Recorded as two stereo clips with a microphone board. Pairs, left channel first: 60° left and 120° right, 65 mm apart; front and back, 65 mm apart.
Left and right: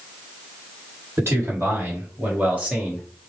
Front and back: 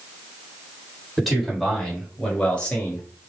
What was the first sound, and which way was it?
A man speaking, 95° right.